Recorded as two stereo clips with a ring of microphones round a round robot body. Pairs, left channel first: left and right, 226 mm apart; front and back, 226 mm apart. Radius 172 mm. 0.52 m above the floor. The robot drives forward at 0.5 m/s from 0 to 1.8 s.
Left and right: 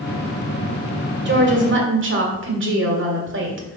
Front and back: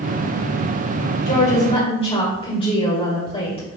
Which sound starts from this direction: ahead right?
A woman speaking, at 1.2 s.